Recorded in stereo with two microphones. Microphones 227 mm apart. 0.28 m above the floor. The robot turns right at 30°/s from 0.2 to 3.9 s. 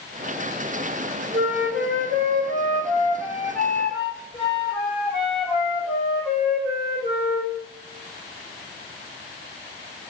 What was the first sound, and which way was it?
A flute, 70° right.